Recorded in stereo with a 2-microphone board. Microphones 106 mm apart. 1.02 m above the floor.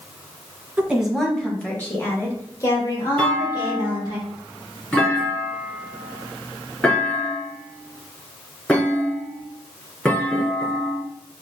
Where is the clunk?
15° left (ahead or behind), 2.5 m.